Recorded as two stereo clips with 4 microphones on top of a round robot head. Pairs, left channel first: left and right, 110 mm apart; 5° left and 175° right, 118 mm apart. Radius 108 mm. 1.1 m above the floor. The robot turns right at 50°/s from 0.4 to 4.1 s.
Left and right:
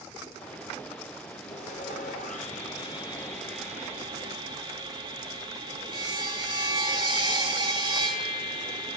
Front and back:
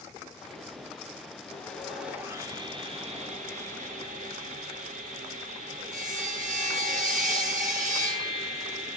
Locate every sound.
1.5 s sawing: 75° left, 4 m; by 9.0 s 155° right, 4 m